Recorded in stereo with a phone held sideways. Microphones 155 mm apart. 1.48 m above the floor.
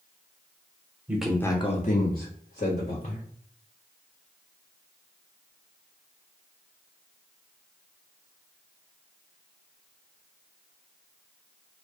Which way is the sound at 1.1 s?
10° right (ahead or behind).